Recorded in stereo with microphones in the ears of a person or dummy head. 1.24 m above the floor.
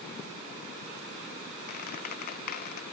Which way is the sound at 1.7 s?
50° left (ahead or behind).